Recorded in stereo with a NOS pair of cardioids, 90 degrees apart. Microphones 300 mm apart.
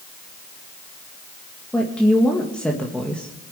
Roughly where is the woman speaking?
Ahead.